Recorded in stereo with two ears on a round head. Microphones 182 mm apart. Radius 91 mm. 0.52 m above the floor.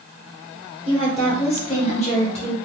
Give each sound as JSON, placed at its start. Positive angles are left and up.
{"t": 0.8, "sound": "a woman speaking", "side_deg": 30, "distance_m": 1.8}